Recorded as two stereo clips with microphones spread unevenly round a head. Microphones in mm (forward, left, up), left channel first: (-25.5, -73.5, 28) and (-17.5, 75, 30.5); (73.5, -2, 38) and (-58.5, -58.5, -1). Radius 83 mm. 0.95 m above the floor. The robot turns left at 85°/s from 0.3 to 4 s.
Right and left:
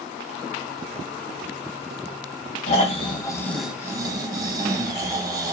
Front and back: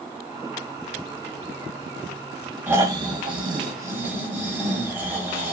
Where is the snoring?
100° right, 0.9 m; by 5.5 s 145° left, 0.9 m.